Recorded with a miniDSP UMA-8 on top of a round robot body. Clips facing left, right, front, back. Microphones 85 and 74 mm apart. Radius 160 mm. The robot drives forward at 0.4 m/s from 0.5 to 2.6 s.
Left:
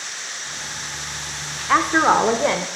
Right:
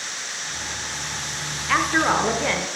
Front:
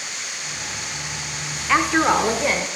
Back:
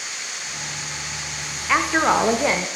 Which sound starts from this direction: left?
A woman speaking, at 1.7 s.